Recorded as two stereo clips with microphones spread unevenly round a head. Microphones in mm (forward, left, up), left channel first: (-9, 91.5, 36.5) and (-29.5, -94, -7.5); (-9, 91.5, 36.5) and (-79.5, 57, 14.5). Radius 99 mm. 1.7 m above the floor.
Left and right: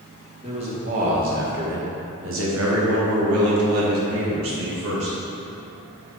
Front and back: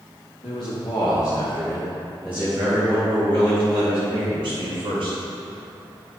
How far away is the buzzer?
No buzzer in this recording.